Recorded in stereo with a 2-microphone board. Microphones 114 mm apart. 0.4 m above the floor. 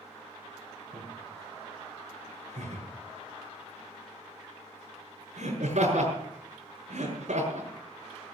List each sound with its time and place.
0.9 s laughter: 70° right (ahead or behind), 5 m